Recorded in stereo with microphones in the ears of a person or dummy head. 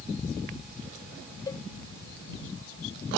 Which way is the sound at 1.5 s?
25° left (ahead or behind).